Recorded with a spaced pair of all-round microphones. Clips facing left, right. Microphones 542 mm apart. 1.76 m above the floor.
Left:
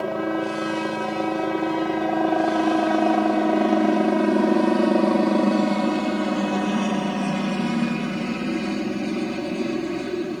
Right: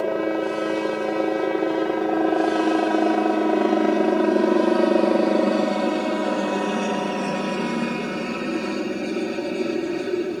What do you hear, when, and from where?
0.0 s a helicopter: 25° left (ahead or behind)